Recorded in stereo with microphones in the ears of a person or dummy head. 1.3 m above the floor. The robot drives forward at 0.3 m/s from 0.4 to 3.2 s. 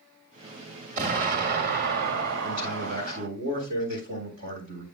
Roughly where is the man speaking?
Right.